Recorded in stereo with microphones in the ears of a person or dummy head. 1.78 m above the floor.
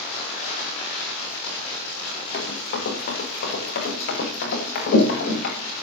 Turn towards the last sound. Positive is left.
turn(degrees=75)  # may be behind; listen again after turning